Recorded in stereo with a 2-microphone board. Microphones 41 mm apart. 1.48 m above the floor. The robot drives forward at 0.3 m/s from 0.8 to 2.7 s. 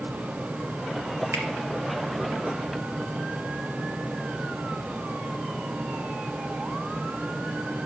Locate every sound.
1.3 s a finger snap: 80° right, 2.5 m